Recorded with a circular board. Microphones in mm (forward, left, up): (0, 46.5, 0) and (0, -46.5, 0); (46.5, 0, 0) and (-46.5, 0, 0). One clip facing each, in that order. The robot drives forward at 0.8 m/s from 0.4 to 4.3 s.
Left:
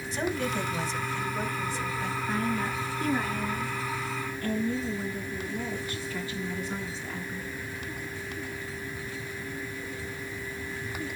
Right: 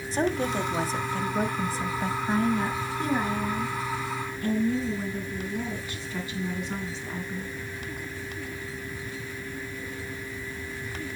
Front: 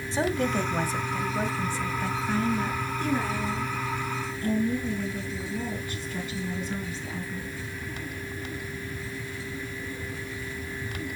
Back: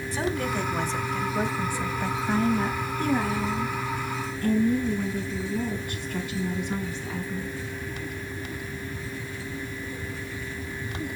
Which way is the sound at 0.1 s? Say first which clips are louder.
Right 4 dB, front 2 dB; 50° right.